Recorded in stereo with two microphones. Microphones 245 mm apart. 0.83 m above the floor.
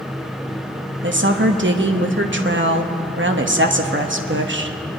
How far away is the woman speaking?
About 1.0 m.